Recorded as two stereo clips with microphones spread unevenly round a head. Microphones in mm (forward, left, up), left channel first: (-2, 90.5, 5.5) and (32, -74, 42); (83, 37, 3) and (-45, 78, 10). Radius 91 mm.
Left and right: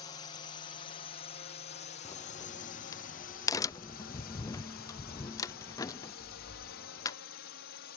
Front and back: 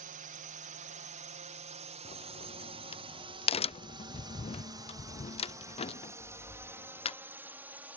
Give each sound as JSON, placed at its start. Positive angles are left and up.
{"t": 0.0, "sound": "a drone", "azimuth_deg": 160}
{"t": 2.0, "sound": "a crack", "azimuth_deg": 25}